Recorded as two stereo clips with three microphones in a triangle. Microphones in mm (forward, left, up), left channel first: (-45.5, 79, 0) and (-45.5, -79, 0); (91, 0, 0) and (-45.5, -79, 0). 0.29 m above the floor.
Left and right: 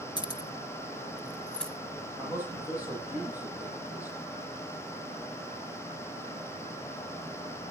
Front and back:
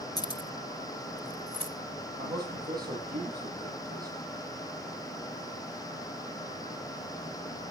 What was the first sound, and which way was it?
Keys jangling, 65° left.